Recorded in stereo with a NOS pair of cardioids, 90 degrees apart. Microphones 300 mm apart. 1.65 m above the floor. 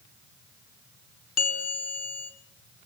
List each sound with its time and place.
1.4 s a bell: 55° left, 1.7 m